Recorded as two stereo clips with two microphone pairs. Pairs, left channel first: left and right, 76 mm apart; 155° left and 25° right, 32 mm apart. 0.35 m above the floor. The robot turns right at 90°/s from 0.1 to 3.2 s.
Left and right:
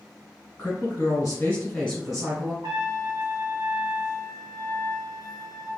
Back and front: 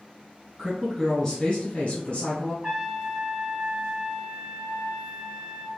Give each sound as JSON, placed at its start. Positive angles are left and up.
{"t": 0.6, "sound": "a woman speaking", "azimuth_deg": 45, "distance_m": 1.2}
{"t": 2.6, "sound": "a trumpet", "azimuth_deg": -85, "distance_m": 1.7}